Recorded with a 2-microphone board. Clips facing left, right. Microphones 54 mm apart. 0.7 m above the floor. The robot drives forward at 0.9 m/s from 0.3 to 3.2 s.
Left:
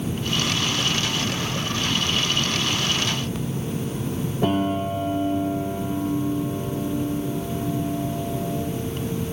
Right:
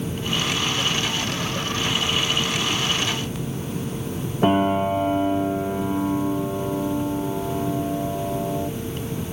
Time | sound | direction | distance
4.4 | a piano | 30° right (ahead or behind) | 0.9 m